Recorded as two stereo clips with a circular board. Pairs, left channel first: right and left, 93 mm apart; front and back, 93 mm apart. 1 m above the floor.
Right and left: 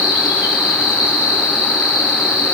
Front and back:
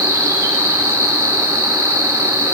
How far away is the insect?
About 3.5 m.